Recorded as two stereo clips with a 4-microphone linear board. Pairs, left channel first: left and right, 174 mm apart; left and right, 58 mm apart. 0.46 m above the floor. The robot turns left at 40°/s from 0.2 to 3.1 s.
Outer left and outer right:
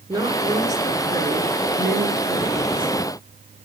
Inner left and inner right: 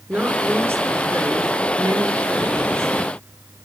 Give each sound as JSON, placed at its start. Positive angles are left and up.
{"t": 0.1, "sound": "a woman speaking", "azimuth_deg": -25, "distance_m": 7.0}